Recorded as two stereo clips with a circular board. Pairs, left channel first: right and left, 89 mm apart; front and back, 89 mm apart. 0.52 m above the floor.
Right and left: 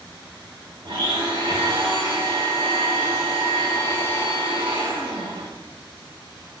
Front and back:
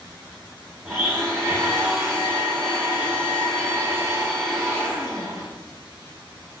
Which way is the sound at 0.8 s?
85° left.